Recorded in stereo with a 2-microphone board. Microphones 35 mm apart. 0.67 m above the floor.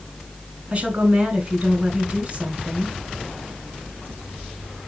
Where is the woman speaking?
40° right (ahead or behind), 3.5 m.